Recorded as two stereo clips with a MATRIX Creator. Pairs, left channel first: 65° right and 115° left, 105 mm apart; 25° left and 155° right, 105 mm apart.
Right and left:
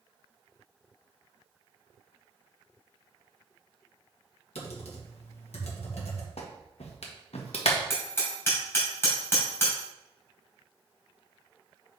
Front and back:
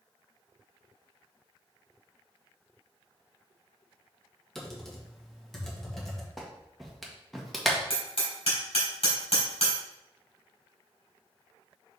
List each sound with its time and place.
4.5 s typing on a keyboard: 65° right, 1.7 m
6.4 s a clap: 70° right, 1.3 m
7.9 s hammering: straight ahead, 3.5 m